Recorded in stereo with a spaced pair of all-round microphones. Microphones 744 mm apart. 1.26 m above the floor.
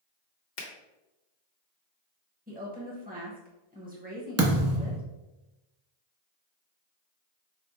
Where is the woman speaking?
10° right (ahead or behind), 0.9 m.